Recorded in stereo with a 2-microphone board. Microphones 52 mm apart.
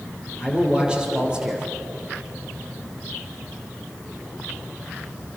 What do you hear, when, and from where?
0.4 s a man speaking: 15° right (ahead or behind), 6 m